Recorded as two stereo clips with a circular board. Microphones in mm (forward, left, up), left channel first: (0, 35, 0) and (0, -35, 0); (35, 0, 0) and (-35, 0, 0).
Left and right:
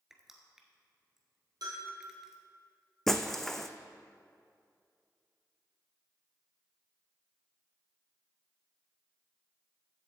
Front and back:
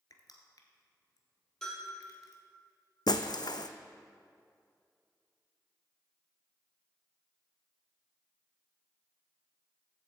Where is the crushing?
5° right, 1.2 m.